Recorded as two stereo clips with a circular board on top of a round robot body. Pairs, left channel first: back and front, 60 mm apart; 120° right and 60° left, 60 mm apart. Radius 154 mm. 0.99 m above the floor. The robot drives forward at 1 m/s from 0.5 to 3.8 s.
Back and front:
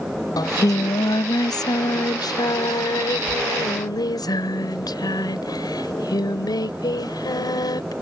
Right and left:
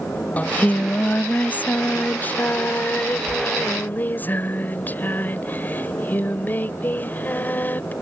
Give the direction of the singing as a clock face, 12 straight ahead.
6 o'clock.